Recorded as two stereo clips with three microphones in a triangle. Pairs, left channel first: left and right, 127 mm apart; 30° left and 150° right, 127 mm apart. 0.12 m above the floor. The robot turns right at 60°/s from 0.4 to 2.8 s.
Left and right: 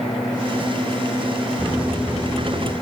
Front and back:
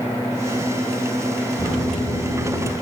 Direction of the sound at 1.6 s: 15° right.